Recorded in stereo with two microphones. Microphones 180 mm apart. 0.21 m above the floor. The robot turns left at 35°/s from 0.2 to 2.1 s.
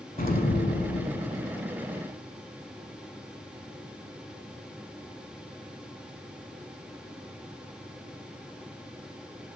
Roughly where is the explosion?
Behind left.